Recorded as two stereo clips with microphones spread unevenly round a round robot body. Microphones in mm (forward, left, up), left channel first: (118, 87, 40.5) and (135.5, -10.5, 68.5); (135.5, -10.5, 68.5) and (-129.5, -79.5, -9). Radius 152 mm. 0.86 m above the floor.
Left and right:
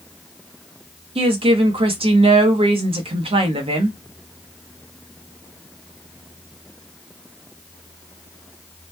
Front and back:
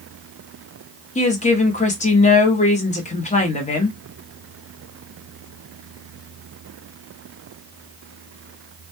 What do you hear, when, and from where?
1.1 s a woman speaking: 55° right, 0.9 m